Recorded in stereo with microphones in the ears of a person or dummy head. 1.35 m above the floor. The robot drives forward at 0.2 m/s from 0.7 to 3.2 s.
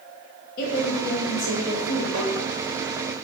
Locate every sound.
0.6 s a woman speaking: 50° left (ahead or behind), 0.7 m; by 2.0 s 65° left (ahead or behind), 0.6 m
2.1 s tapping: 55° right (ahead or behind), 0.7 m